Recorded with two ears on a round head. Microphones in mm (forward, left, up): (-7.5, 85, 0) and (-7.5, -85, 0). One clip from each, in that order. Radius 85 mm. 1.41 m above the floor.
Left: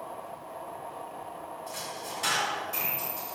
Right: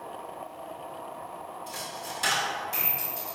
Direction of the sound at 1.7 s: 25° right (ahead or behind).